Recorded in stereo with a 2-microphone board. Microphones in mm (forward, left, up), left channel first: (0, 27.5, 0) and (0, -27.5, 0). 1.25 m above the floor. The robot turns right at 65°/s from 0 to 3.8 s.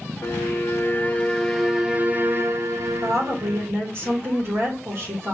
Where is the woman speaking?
100° right, 1.9 m; by 5.3 s 50° right, 1.9 m.